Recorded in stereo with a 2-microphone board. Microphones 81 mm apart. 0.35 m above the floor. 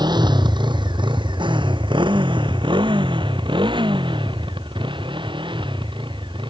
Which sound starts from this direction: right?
A motorcycle, at 0.0 s.